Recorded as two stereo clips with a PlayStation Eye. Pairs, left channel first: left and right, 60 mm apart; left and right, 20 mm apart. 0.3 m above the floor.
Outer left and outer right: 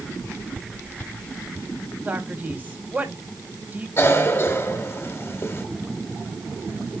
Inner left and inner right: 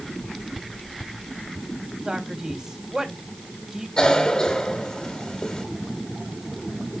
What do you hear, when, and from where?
2.0 s a man speaking: 30° right (ahead or behind), 2 m
4.0 s a cough: 40° left (ahead or behind), 1.7 m